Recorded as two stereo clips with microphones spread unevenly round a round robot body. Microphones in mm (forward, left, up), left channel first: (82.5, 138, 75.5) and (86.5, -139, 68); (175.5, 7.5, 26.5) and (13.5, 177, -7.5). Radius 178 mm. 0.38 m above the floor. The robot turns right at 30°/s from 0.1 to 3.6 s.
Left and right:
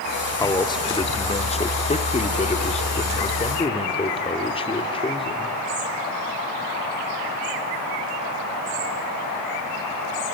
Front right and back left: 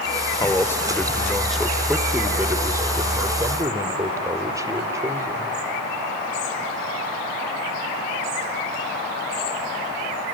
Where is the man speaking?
30° left, 1.1 m; by 5.6 s 130° left, 1.1 m.